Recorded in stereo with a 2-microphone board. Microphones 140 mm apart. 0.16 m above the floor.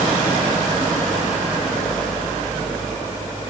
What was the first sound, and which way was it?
Only background noise.